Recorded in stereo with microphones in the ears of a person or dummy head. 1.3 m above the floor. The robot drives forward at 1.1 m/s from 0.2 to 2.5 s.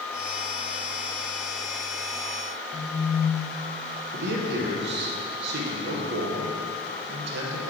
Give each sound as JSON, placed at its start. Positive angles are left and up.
{"t": 2.7, "sound": "a phone buzzing", "side_deg": -5, "distance_m": 0.9}
{"t": 4.1, "sound": "a man speaking", "side_deg": -65, "distance_m": 0.9}